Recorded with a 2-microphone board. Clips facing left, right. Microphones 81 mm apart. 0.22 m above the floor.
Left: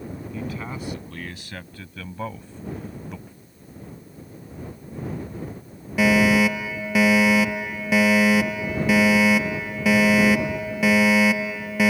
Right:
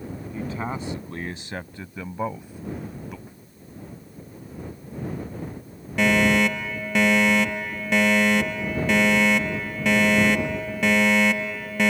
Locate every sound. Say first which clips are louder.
0.3 s a man speaking: right 3 dB; 30° right (ahead or behind); by 3.2 s centre (ahead or behind)
3.3 s a snare drum: even; 15° right (ahead or behind)
6.0 s a fire alarm: left 2 dB; 5° left (ahead or behind)